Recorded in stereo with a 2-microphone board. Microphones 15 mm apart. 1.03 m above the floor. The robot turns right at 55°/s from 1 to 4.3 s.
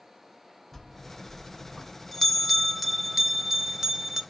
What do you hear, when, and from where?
0.7 s a bell: 20° left (ahead or behind), 0.6 m; by 4.2 s 20° right (ahead or behind), 0.6 m